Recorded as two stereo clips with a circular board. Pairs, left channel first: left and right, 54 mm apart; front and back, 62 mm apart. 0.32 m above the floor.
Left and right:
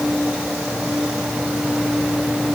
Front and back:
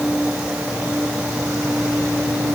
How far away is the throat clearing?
No throat clearing in this recording.